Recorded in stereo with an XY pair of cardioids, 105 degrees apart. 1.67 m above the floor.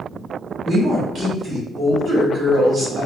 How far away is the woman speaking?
About 1.6 m.